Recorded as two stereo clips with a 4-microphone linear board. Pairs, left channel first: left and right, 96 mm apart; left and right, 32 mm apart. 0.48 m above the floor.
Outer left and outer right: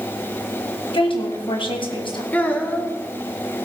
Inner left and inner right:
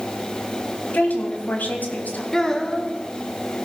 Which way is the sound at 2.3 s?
20° left (ahead or behind).